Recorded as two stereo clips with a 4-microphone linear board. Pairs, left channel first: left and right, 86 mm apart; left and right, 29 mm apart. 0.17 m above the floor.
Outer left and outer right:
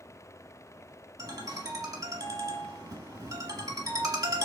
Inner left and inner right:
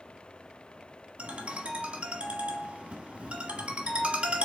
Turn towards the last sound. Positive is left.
turn(degrees=-45)  # may be behind; listen again after turning